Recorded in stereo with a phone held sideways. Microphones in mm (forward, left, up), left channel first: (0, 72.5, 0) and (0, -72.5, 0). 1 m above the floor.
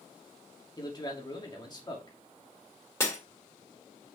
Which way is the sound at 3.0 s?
20° left (ahead or behind).